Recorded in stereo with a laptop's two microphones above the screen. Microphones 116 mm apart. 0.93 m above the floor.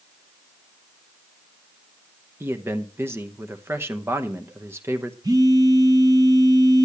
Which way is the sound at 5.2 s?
35° right (ahead or behind).